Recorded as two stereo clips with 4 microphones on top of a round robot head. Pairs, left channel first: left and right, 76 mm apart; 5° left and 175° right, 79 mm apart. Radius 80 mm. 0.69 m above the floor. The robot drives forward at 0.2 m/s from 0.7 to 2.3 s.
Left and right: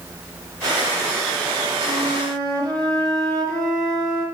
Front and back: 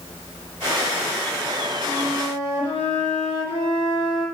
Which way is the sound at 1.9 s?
60° right.